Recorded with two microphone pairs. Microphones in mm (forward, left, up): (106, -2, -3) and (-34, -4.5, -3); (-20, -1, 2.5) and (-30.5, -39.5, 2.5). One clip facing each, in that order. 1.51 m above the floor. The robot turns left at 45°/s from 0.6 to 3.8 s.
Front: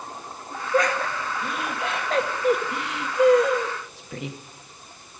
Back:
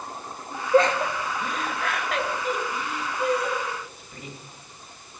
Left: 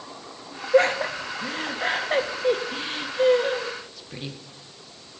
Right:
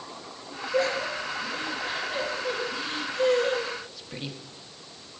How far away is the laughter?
About 1.7 m.